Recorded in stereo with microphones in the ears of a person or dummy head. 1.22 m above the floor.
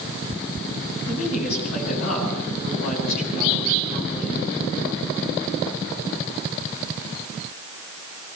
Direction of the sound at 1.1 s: 60° left (ahead or behind).